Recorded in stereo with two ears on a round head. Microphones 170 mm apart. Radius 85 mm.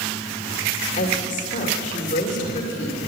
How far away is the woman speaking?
About 2.5 m.